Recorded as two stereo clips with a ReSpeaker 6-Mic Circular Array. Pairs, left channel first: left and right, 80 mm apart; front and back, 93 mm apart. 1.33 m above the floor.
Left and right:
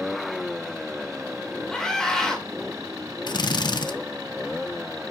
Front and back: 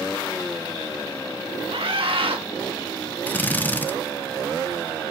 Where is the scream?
175° left, 2 m.